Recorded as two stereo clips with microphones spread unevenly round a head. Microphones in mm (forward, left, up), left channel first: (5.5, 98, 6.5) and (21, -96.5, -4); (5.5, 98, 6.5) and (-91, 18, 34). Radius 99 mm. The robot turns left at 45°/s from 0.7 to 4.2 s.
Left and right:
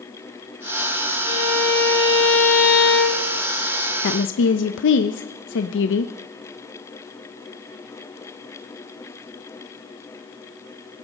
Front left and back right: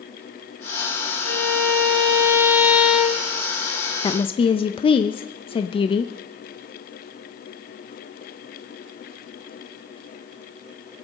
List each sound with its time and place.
1.2 s a violin: 155° right, 2.5 m; by 3.2 s 115° left, 2.5 m
4.0 s a woman speaking: 80° left, 0.6 m; by 6.1 s 75° left, 0.6 m